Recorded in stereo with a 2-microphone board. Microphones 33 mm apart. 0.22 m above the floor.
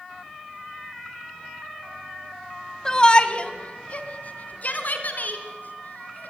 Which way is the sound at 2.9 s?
20° left (ahead or behind).